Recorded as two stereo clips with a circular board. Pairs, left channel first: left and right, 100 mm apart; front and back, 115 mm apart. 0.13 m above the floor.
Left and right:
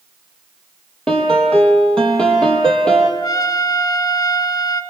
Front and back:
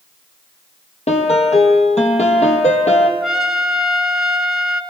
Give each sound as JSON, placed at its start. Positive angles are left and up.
{"t": 1.1, "sound": "a piano", "azimuth_deg": 10, "distance_m": 3.5}
{"t": 3.2, "sound": "a trumpet", "azimuth_deg": 95, "distance_m": 1.6}